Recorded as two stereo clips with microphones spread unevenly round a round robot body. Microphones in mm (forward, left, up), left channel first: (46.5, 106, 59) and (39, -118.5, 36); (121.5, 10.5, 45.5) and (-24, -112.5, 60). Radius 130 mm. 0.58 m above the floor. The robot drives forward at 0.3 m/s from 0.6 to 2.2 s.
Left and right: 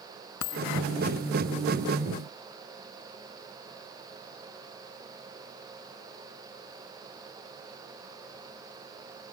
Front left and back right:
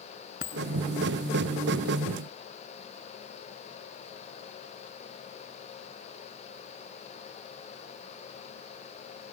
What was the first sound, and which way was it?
A dropped coin, 95° left.